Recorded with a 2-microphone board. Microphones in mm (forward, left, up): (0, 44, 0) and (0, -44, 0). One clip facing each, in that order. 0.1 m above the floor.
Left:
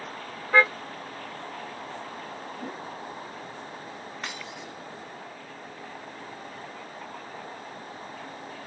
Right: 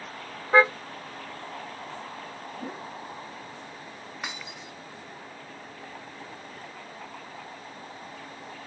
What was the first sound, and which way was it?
A car horn, 15° right (ahead or behind).